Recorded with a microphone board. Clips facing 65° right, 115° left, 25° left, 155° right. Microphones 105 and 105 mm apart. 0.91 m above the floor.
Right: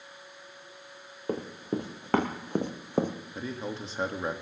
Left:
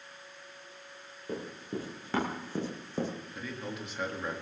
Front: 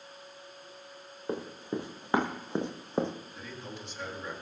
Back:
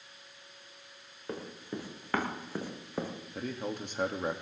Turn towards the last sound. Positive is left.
turn(degrees=-125)